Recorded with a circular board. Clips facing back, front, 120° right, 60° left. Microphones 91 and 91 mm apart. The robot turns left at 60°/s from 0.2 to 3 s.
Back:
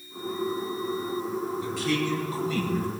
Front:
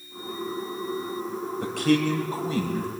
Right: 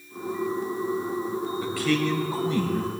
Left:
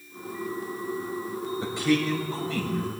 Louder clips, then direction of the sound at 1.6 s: Front 8 dB, left 1 dB; straight ahead.